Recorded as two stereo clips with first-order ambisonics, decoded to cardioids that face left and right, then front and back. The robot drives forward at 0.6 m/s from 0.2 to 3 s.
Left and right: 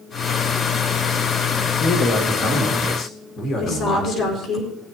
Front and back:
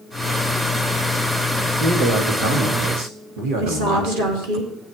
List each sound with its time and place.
1.8 s a man speaking: 145° left, 1.9 m; by 4.6 s 155° left, 2.5 m
3.6 s a woman speaking: 155° left, 3.5 m